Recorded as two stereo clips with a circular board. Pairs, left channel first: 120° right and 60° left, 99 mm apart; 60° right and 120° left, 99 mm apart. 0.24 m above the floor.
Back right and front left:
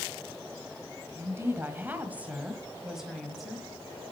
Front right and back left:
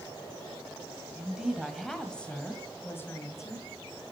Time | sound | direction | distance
1.1 | a woman speaking | 55° left | 1.5 m